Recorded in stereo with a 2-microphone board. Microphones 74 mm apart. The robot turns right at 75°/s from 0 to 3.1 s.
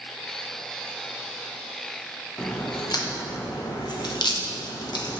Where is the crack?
20° left (ahead or behind), 1.0 m; by 5.2 s 70° left (ahead or behind), 1.0 m.